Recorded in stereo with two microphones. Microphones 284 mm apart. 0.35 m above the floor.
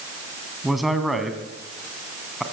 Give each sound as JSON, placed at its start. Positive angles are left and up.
{"t": 0.6, "sound": "a man speaking", "side_deg": 0, "distance_m": 2.5}